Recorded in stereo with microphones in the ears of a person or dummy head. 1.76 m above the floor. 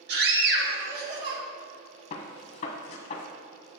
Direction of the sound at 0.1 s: 65° right (ahead or behind).